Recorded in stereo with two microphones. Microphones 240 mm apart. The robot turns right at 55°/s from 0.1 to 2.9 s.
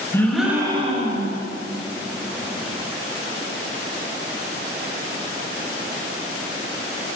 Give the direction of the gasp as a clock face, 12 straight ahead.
6 o'clock.